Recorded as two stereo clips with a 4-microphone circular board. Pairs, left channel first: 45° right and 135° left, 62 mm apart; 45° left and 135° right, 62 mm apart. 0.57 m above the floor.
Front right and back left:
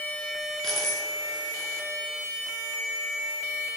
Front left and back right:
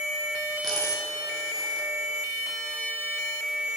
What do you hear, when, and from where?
0.6 s a dropped coin: 125° right, 2.5 m